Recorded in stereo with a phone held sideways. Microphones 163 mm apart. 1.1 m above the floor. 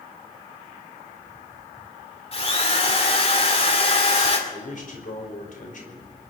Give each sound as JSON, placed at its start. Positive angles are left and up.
{"t": 2.3, "sound": "a drill", "side_deg": 40, "distance_m": 2.5}
{"t": 4.5, "sound": "a man speaking", "side_deg": 60, "distance_m": 5.0}